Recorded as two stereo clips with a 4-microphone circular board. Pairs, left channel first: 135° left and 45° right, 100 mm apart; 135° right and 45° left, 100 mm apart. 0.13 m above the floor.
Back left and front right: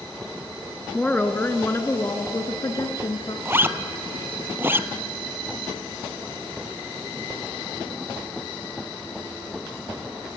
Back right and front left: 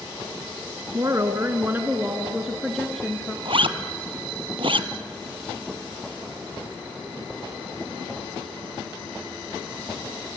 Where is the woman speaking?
65° left, 1.3 m; by 3.4 s 150° left, 1.5 m.